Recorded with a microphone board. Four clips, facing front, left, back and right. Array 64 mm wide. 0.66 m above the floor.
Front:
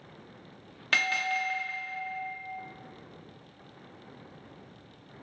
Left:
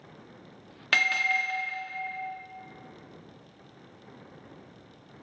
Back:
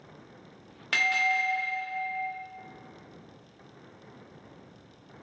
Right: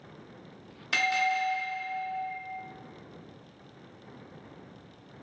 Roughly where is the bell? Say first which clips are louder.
Left 1 dB, back 2 dB; left.